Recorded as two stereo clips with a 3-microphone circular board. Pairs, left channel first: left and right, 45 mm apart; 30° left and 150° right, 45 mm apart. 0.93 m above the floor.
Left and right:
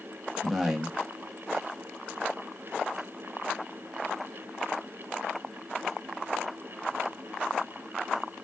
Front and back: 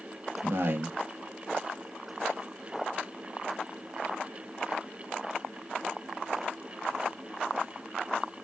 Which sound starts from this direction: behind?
A man speaking, at 0.4 s.